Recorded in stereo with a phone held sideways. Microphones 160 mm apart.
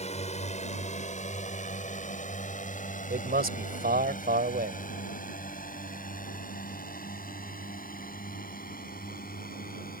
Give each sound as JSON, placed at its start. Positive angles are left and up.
{"t": 0.0, "sound": "a drone", "side_deg": 45}
{"t": 3.1, "sound": "a man speaking", "side_deg": -75}